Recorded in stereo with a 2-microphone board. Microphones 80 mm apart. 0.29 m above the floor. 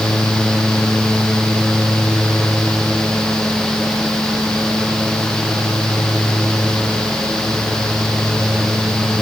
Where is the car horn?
No car horn in this recording.